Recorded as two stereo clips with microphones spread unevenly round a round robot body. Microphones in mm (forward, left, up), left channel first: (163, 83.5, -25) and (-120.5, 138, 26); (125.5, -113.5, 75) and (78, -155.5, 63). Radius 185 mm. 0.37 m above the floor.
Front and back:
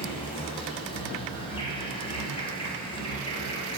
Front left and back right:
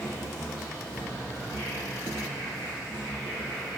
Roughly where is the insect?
Ahead left.